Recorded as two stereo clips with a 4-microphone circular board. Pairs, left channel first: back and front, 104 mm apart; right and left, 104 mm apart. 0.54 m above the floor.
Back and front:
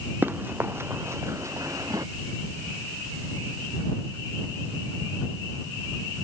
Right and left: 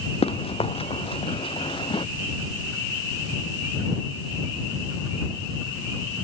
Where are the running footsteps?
75° right; by 2.1 s 55° right.